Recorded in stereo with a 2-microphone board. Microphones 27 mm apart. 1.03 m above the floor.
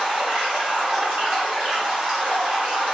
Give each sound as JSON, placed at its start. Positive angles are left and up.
{"t": 0.0, "sound": "running water", "side_deg": -45, "distance_m": 2.0}